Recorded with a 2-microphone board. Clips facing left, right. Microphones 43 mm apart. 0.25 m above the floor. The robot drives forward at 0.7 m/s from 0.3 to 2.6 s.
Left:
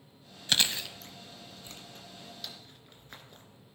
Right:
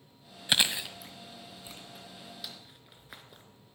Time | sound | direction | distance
0.5 | chewing | 15° right (ahead or behind) | 0.8 m